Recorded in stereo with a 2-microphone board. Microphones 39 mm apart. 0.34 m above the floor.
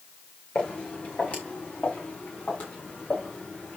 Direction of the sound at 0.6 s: 35° left (ahead or behind).